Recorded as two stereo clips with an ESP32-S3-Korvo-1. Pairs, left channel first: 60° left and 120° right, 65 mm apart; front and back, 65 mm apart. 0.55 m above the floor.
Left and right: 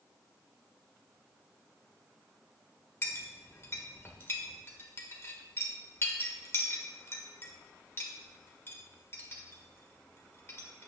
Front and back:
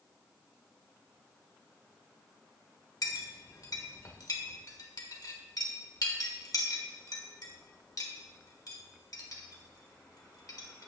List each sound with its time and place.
3.0 s a clink: 15° left, 1.4 m